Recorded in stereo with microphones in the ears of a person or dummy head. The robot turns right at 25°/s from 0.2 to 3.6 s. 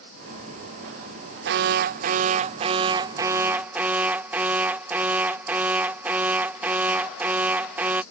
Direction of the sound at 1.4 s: 65° right.